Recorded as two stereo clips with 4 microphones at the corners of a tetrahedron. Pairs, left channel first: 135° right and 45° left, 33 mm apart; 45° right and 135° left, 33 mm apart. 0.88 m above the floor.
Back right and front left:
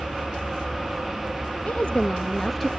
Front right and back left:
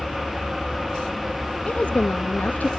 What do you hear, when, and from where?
1.6 s a woman speaking: 90° right, 0.7 m; by 2.7 s 40° right, 0.6 m